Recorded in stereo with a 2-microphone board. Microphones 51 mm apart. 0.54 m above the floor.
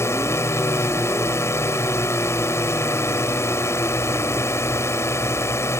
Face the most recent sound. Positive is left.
turn(degrees=60)  # may be behind; listen again after turning